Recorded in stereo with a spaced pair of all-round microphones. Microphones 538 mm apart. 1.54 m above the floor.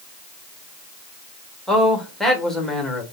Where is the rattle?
No rattle in this recording.